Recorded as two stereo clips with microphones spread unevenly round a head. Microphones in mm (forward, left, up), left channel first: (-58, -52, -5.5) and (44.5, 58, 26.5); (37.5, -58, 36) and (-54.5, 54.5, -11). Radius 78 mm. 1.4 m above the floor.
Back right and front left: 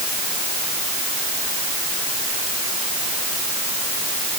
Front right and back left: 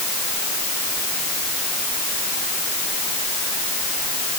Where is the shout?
I don't hear a shout.